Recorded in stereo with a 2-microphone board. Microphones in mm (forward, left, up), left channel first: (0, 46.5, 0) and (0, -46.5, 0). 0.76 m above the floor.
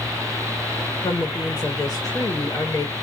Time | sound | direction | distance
1.0 | a woman speaking | 35° left (ahead or behind) | 0.9 m